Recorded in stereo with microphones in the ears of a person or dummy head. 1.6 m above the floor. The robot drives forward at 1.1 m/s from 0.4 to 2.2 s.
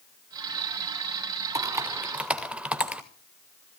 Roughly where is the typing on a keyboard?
Centre.